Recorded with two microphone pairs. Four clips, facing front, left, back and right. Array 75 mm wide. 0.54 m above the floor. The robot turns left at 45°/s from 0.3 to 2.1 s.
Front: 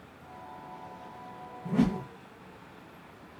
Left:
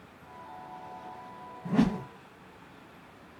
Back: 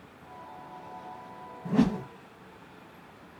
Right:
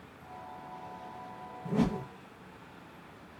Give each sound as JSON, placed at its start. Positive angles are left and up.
{"t": 1.6, "sound": "a whoosh", "azimuth_deg": 125, "distance_m": 1.0}